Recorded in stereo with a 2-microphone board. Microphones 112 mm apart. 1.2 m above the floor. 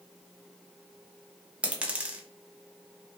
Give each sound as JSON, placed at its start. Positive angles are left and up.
{"t": 1.6, "sound": "a dropped coin", "side_deg": -10, "distance_m": 0.6}